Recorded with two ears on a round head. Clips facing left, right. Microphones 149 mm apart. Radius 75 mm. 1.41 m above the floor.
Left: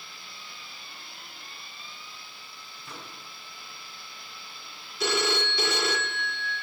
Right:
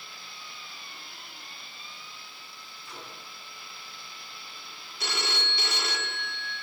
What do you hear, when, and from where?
2.9 s a microwave: 50° left (ahead or behind), 8 m
5.0 s a phone ringing: 70° left (ahead or behind), 2 m